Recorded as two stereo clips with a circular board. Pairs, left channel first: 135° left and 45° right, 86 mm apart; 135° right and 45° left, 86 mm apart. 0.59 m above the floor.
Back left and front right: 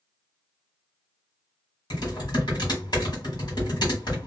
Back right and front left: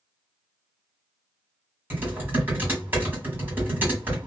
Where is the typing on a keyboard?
110° left, 1.5 m.